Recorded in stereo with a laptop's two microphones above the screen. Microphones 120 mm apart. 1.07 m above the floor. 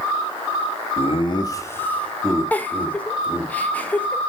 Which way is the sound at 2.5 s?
10° left (ahead or behind).